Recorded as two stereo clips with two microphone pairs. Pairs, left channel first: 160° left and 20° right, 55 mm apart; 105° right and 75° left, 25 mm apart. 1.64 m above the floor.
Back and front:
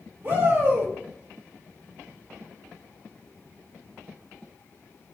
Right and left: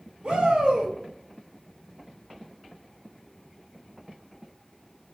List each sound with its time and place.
0.2 s a shout: 30° left, 2 m